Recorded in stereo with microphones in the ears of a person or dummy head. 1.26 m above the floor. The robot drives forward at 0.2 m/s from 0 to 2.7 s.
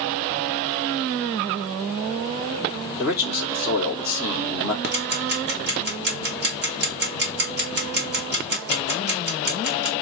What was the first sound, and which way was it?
A man speaking, 5° right (ahead or behind).